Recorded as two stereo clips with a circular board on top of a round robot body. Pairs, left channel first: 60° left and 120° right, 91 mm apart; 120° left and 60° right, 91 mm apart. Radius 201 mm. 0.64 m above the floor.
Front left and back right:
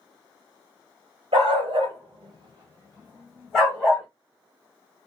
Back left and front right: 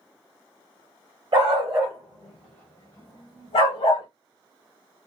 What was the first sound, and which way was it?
A dog barking, 100° right.